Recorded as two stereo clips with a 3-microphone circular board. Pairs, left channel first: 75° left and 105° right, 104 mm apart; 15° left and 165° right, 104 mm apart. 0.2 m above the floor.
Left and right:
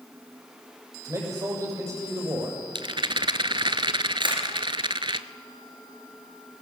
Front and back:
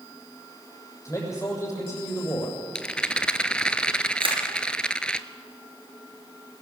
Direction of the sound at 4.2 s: 140° right.